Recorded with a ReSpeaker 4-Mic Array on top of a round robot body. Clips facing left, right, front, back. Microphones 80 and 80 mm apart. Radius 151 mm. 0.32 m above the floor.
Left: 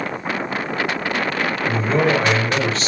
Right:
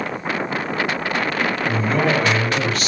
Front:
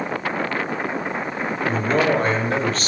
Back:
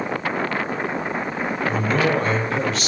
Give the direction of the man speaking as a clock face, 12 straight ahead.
11 o'clock.